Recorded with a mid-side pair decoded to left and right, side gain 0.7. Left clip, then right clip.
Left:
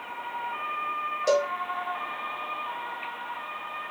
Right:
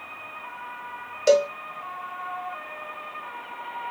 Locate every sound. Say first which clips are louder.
1.3 s a cowbell: right 5 dB; 40° right, 1.0 m